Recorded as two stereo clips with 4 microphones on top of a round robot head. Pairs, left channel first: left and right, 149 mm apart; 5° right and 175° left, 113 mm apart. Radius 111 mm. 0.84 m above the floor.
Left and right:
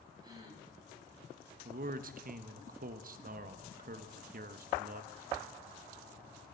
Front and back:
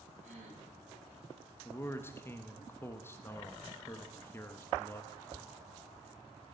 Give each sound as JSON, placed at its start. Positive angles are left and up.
{"t": 0.2, "sound": "a gasp", "azimuth_deg": -155, "distance_m": 3.0}
{"t": 1.6, "sound": "a man speaking", "azimuth_deg": -75, "distance_m": 0.7}